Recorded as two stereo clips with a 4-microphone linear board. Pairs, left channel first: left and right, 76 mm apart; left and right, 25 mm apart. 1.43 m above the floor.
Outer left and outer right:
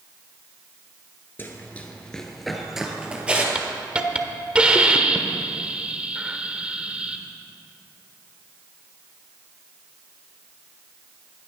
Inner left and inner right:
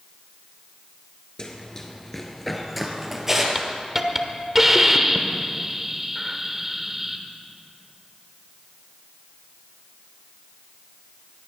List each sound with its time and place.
1.4 s running footsteps: 30° left (ahead or behind), 1.6 m; by 3.5 s 15° right (ahead or behind), 2.5 m
3.5 s a hiss: 15° right (ahead or behind), 1.1 m